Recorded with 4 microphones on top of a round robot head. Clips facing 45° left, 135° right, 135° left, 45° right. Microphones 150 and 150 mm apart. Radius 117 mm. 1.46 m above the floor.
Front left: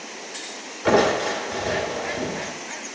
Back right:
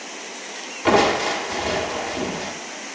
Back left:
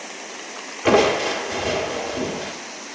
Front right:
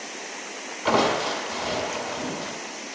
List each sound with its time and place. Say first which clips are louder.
0.8 s crushing: back right 1 dB, back left 5 dB; 165° left, 2.0 m